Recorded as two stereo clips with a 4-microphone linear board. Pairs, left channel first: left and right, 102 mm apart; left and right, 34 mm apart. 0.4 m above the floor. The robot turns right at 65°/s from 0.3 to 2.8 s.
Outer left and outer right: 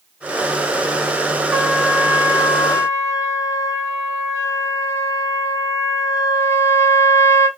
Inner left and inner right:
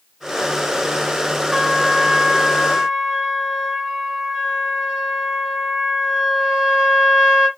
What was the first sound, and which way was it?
A trumpet, 10° right (ahead or behind).